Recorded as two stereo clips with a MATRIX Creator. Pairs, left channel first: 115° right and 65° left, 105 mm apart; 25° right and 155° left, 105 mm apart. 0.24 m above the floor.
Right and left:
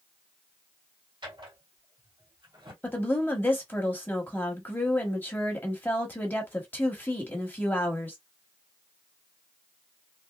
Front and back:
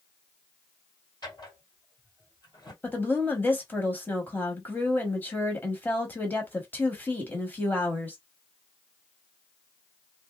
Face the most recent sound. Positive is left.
turn(degrees=-70)